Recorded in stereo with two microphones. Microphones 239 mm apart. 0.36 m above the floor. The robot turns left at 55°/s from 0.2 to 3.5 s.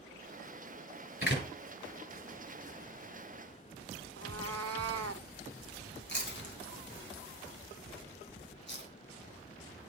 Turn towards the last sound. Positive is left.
turn(degrees=45)  # may be behind; listen again after turning